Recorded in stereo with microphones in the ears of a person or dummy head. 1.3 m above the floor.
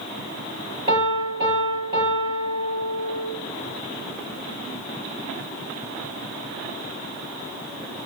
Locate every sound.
0.9 s a piano: 30° right (ahead or behind), 7.5 m